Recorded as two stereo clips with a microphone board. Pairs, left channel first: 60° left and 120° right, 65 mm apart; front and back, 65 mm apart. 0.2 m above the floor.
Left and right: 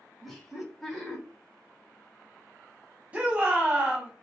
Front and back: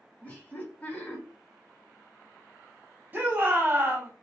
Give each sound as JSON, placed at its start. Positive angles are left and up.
{"t": 0.2, "sound": "laughter", "azimuth_deg": -25, "distance_m": 1.0}
{"t": 3.1, "sound": "a shout", "azimuth_deg": -170, "distance_m": 1.0}